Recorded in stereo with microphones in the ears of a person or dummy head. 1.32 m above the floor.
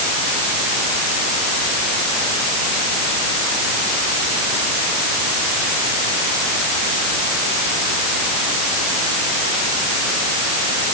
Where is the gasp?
I don't hear a gasp.